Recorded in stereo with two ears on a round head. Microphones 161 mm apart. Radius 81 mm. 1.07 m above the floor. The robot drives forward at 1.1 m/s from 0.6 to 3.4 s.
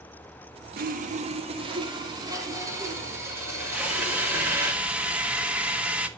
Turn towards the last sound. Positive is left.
turn(degrees=-5)  # may be behind; listen again after turning